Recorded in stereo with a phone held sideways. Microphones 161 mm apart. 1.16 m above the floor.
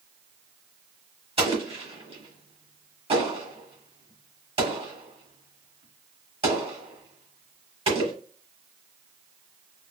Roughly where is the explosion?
Right.